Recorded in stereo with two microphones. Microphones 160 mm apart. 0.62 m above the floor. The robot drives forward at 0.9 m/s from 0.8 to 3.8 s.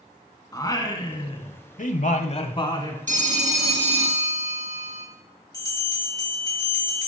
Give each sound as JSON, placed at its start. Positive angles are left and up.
{"t": 0.5, "sound": "singing", "side_deg": 25, "distance_m": 1.1}
{"t": 3.1, "sound": "a phone ringing", "side_deg": -55, "distance_m": 1.0}
{"t": 5.5, "sound": "a bell", "side_deg": 25, "distance_m": 2.5}